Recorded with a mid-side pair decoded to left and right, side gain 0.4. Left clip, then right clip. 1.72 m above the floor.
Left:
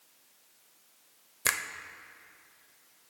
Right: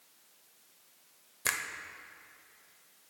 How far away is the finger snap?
About 0.8 m.